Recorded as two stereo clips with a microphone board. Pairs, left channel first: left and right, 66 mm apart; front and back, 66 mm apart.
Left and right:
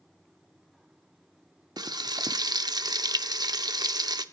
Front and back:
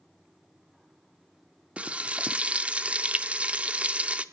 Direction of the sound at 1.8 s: 110° right.